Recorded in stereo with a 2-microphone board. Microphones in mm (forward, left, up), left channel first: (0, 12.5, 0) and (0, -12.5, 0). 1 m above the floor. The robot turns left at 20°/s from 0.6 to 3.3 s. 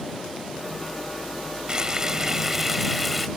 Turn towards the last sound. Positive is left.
turn(degrees=175)